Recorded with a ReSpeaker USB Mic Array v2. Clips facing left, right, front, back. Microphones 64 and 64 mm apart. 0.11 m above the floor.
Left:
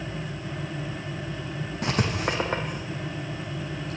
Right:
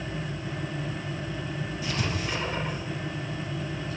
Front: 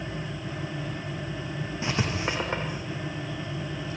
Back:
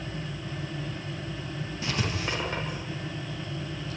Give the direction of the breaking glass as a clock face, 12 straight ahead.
I don't hear breaking glass.